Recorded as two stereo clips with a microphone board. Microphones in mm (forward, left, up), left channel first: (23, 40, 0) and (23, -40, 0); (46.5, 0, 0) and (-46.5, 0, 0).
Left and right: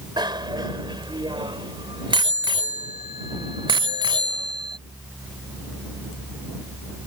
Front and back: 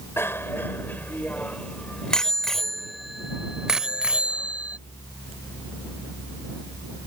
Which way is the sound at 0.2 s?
65° right.